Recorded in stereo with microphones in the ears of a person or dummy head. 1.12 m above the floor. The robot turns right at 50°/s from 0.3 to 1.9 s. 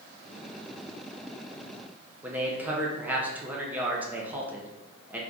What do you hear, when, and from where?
2.2 s a man speaking: 5° right (ahead or behind), 0.7 m